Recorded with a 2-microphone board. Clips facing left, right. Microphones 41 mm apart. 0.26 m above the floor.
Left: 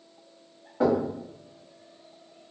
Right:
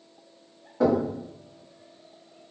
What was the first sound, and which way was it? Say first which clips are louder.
Knocking: right 1 dB; 20° left (ahead or behind).